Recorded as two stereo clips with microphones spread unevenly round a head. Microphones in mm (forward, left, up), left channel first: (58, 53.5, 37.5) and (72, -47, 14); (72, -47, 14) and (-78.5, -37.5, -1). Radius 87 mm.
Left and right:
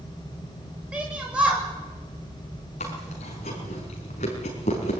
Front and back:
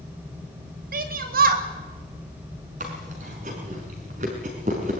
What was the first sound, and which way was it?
A shout, 165° right.